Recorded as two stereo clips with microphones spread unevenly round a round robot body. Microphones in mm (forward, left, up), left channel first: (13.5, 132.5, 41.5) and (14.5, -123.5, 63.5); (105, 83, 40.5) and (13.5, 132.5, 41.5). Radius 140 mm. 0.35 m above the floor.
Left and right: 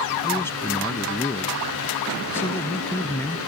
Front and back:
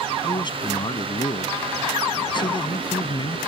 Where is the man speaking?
10° left.